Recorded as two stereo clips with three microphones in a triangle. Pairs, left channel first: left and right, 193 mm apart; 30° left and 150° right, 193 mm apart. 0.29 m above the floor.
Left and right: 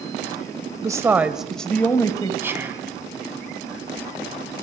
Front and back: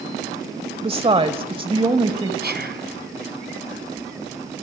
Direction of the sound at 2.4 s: 165° right.